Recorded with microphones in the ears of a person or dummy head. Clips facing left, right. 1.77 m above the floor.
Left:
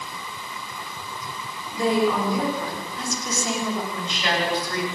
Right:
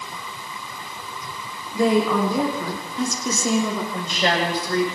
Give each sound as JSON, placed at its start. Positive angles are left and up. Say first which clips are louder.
{"t": 1.7, "sound": "a woman speaking", "louder": "right 3 dB", "side_deg": -60, "distance_m": 6.0}
{"t": 3.9, "sound": "a woman speaking", "louder": "right 4 dB", "side_deg": -35, "distance_m": 7.0}